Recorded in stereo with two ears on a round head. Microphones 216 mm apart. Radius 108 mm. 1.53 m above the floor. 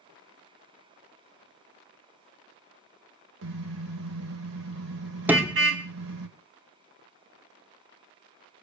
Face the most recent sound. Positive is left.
turn(degrees=-10)  # may be behind; listen again after turning